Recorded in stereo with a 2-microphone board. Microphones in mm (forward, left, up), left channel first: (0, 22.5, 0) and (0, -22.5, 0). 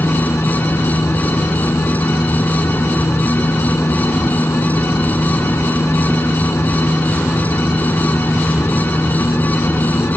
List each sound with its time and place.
0.0 s a helicopter: 70° left (ahead or behind)